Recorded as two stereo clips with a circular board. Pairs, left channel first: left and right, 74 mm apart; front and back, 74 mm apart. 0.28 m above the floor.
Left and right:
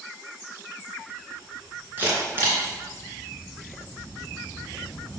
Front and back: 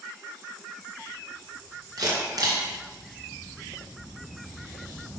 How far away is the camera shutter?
About 3 m.